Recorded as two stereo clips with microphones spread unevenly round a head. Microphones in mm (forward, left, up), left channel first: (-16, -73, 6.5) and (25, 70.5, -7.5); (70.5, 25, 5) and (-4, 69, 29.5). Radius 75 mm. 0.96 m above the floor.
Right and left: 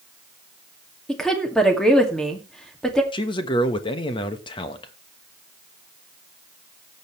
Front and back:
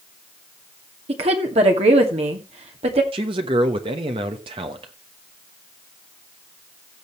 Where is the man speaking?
165° right, 1.2 m.